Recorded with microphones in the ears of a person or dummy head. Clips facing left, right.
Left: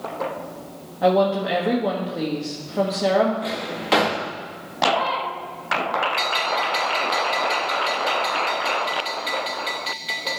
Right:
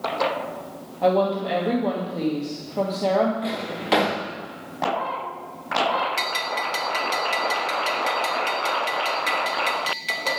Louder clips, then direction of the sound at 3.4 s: Even; centre (ahead or behind).